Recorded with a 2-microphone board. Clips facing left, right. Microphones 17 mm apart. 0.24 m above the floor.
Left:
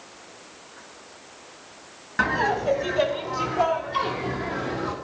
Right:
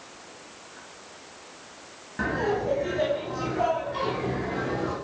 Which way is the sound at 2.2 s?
45° left (ahead or behind).